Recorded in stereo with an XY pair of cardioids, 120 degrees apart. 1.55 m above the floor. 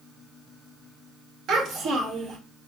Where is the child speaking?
65° right, 1.7 m.